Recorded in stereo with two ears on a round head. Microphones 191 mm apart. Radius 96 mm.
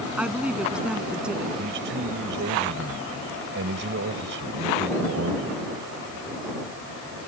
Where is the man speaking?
60° right (ahead or behind).